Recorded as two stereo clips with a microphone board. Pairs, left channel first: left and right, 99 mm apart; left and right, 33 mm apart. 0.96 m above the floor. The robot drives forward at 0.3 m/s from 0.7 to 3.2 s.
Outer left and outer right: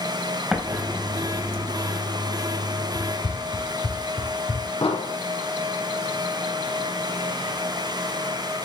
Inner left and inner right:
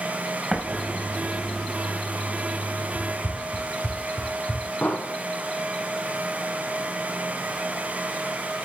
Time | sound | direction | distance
0.5 | an explosion | 10° right (ahead or behind) | 3.5 m
3.0 | running footsteps | 45° left (ahead or behind) | 1.3 m
4.8 | an explosion | 80° left | 6 m